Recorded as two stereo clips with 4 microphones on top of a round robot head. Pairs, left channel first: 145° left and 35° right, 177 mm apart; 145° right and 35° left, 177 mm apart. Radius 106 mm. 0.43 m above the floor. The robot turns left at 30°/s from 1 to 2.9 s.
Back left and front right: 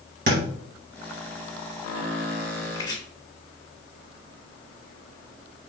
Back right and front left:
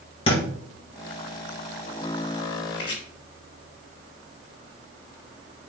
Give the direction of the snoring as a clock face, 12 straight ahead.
No snoring in this recording.